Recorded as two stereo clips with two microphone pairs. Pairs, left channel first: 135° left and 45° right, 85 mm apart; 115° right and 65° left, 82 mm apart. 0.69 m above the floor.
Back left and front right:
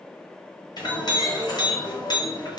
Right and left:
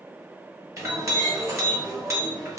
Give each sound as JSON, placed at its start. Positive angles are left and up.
{"t": 0.8, "sound": "a clink", "azimuth_deg": 110, "distance_m": 1.0}